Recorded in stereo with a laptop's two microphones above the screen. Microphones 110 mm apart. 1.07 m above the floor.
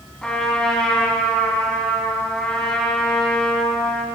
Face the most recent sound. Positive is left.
turn(degrees=5)  # may be behind; listen again after turning